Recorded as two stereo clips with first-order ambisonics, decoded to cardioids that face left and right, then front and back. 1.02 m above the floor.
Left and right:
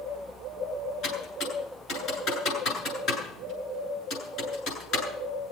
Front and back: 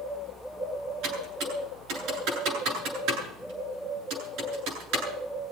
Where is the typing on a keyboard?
145° left, 9 m.